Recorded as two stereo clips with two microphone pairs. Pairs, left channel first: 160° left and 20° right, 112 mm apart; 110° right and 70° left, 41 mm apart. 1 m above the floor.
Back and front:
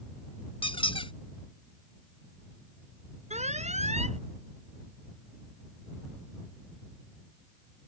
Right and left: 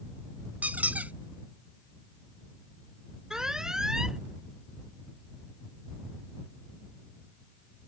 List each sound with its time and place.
0.6 s a squeak: 125° left
3.3 s an alarm: 5° right